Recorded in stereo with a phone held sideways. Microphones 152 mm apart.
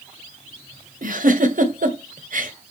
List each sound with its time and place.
1.0 s a giggle: 65° right (ahead or behind), 1.4 m